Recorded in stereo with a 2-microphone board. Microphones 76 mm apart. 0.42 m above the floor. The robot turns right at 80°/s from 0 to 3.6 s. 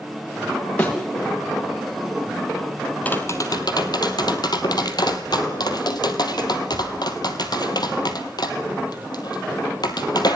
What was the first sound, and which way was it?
A thud, 15° left (ahead or behind).